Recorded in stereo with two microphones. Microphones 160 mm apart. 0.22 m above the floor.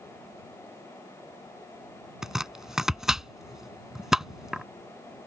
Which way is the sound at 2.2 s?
5° right (ahead or behind).